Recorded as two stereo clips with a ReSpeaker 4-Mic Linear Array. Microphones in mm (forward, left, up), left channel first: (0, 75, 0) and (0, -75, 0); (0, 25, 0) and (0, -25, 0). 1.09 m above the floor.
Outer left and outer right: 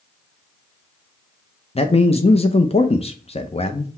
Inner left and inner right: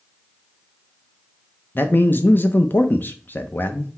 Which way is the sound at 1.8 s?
40° left (ahead or behind).